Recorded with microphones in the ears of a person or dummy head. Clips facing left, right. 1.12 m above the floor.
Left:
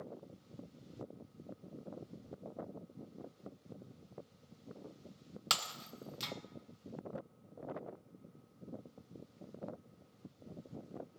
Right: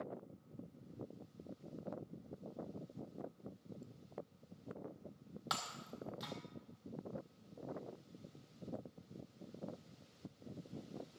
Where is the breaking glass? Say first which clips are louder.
Left 1 dB; 40° left (ahead or behind), 0.9 m.